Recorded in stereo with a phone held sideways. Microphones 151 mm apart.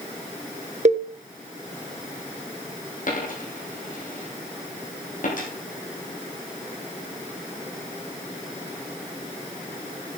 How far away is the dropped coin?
About 4.5 m.